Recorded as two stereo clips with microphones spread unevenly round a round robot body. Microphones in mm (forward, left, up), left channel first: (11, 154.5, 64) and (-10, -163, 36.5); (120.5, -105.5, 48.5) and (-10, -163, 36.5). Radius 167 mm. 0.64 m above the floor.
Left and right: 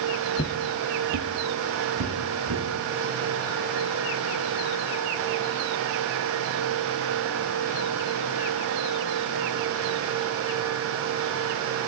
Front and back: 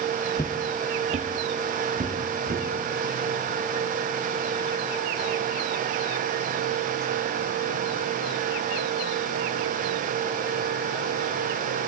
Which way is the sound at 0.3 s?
50° left.